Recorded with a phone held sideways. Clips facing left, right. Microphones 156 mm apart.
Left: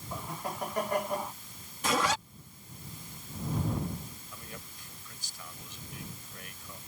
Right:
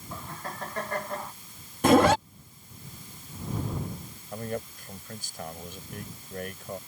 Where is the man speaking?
50° right (ahead or behind).